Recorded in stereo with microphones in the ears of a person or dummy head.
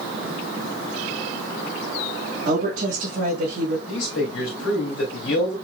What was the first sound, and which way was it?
A woman speaking, 40° right (ahead or behind).